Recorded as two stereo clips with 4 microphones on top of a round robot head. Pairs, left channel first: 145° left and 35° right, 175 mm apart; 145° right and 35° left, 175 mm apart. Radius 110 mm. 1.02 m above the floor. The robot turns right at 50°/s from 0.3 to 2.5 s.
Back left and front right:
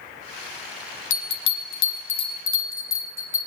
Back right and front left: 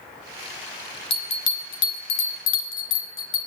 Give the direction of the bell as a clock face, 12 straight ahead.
7 o'clock.